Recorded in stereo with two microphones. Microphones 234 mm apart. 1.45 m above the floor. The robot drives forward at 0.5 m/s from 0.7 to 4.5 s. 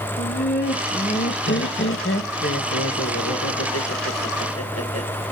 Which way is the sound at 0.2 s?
45° left (ahead or behind).